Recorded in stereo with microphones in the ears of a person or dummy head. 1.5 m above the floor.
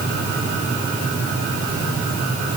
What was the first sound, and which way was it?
Only background noise.